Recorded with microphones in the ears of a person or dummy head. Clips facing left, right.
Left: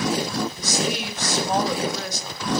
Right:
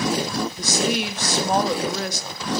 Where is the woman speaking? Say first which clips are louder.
Right 3 dB; 60° right (ahead or behind), 1.0 m.